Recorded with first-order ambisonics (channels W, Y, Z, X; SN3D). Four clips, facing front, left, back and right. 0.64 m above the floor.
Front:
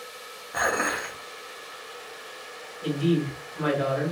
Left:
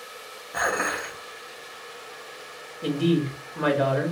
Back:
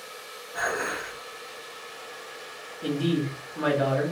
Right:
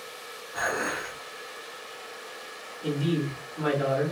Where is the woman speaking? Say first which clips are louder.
Left 4 dB, front 1 dB; 110° left, 0.8 m.